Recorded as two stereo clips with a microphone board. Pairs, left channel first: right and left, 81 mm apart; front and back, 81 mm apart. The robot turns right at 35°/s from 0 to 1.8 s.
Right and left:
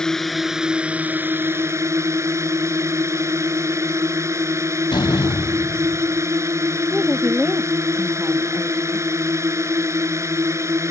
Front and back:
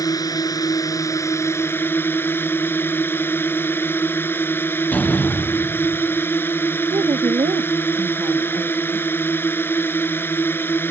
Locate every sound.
0.0 s a drone: 10° right; by 10.9 s 50° left
4.9 s a door slam: 70° right
6.9 s a woman speaking: 175° left